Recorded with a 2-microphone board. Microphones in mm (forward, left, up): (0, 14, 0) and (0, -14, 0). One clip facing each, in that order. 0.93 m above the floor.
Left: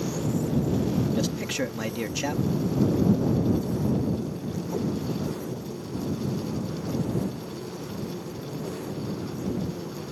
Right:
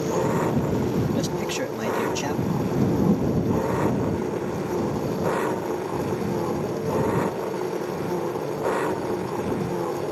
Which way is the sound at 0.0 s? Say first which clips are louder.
Right 5 dB; 75° right (ahead or behind).